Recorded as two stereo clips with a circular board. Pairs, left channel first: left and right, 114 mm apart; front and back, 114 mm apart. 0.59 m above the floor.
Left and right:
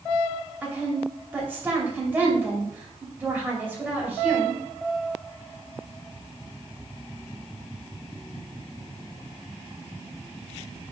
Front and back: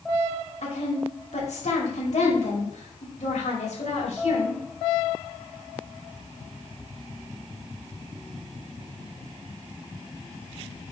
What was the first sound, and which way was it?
A woman speaking, 15° right.